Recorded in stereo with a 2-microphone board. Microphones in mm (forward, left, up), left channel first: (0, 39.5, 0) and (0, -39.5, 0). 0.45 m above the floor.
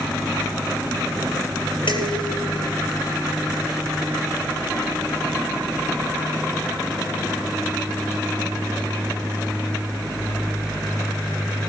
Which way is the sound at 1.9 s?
85° left.